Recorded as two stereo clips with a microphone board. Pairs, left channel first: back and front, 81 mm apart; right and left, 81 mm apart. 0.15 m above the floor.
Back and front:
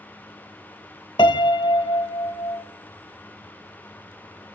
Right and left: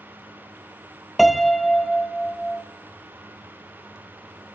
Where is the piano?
Straight behind, 0.6 m.